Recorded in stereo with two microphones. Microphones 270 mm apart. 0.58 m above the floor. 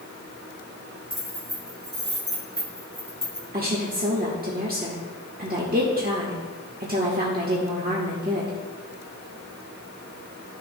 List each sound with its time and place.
1.1 s keys jangling: 25° right (ahead or behind), 2.5 m; by 3.4 s 60° right (ahead or behind), 2.5 m
3.5 s a woman speaking: 35° right (ahead or behind), 1.2 m